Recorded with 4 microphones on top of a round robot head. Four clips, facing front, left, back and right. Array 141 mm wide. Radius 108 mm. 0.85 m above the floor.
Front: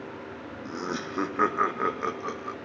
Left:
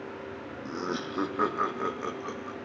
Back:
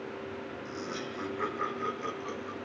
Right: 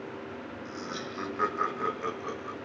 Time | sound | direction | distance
0.7 | laughter | 50° left | 1.4 m